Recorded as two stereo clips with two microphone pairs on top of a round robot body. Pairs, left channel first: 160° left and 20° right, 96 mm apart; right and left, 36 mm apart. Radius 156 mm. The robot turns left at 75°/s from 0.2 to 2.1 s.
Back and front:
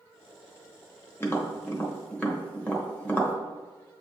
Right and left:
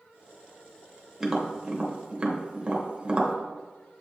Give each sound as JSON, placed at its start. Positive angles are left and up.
{"t": 1.2, "sound": "tapping", "azimuth_deg": 175, "distance_m": 1.1}